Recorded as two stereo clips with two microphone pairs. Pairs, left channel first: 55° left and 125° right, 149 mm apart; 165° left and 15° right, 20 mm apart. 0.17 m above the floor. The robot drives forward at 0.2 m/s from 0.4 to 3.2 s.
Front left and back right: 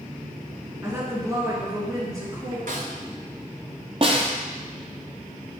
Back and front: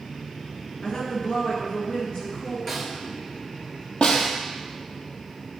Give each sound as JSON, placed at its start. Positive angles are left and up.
{"t": 0.8, "sound": "a woman speaking", "azimuth_deg": 170, "distance_m": 1.9}
{"t": 2.7, "sound": "a snare drum", "azimuth_deg": -115, "distance_m": 1.1}
{"t": 4.0, "sound": "a snare drum", "azimuth_deg": -175, "distance_m": 1.1}